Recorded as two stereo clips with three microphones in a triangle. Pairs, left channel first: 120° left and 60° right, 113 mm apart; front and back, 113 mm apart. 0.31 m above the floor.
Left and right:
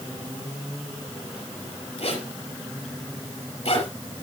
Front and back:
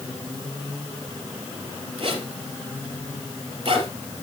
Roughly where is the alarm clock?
I don't hear an alarm clock.